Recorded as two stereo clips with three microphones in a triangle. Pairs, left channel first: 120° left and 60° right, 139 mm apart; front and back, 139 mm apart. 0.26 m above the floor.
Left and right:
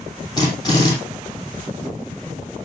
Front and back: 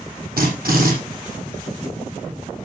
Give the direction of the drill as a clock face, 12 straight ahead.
6 o'clock.